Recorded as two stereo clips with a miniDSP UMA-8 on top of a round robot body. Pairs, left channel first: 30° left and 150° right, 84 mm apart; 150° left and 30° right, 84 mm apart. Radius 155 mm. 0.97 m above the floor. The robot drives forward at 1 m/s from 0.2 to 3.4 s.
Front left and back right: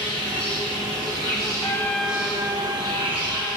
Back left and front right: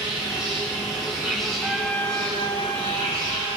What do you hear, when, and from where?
0.0 s an insect: 5° left, 1.4 m; by 3.6 s 175° left, 1.9 m
1.6 s a trumpet: 35° left, 0.6 m; by 3.5 s 175° left, 1.6 m